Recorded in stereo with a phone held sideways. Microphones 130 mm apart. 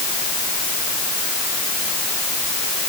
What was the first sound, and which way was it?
Only background noise.